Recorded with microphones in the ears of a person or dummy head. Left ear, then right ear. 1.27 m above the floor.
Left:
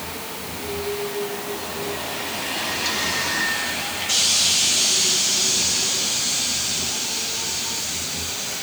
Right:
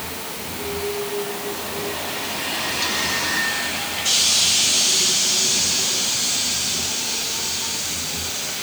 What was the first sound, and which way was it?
Only background noise.